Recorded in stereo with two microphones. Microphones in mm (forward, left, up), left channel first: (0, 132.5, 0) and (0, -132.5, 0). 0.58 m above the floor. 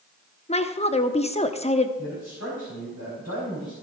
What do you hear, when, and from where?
0.5 s a woman speaking: 25° left (ahead or behind), 0.6 m
2.0 s a man speaking: 65° right (ahead or behind), 4.5 m